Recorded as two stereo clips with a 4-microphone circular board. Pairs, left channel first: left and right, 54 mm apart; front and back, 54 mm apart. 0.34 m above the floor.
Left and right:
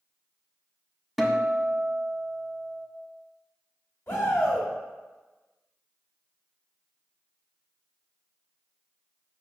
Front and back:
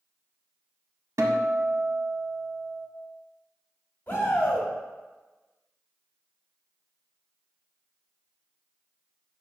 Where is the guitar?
Straight behind, 0.6 m.